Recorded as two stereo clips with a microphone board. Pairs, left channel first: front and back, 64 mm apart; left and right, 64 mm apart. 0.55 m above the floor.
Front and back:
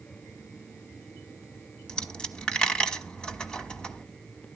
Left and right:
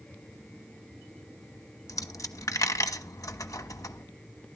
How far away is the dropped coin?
About 1.1 m.